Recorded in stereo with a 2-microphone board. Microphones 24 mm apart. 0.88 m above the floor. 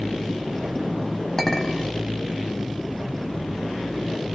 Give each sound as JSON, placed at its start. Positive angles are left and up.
{"t": 1.4, "sound": "a clink", "side_deg": 20, "distance_m": 1.3}